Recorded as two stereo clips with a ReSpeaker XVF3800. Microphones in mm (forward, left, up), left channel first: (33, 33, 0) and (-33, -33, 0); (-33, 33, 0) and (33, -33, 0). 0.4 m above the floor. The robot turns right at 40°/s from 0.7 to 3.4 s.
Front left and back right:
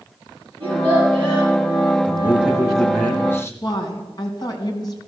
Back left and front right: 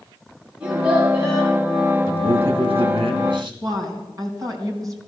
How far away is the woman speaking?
About 3.5 m.